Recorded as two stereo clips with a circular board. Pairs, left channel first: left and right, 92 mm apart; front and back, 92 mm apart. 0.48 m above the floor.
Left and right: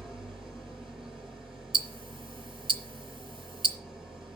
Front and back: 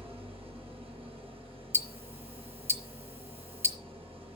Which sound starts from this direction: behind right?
Ticking, at 1.7 s.